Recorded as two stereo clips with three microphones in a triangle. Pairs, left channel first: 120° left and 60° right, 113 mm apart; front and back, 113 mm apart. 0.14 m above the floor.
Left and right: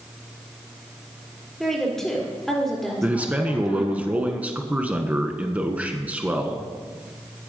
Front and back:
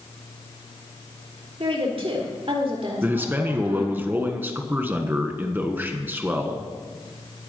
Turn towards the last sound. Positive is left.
turn(degrees=-125)